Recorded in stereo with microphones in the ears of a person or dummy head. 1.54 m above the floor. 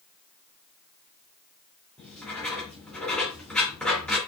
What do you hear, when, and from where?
2.0 s writing: centre (ahead or behind), 2.5 m